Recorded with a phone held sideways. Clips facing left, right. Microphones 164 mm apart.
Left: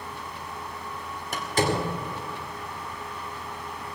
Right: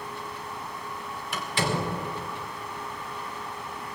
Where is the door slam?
40° left (ahead or behind), 2.5 m.